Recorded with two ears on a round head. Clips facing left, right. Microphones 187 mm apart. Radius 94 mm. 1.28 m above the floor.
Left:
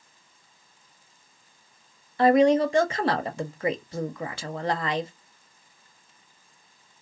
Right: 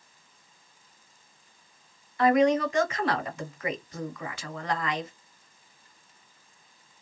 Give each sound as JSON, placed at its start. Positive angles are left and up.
{"t": 2.2, "sound": "a woman speaking", "side_deg": 25, "distance_m": 0.6}